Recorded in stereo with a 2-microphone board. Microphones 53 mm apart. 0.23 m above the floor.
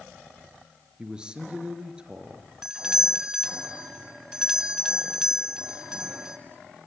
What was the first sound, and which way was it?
A man speaking, 20° right (ahead or behind).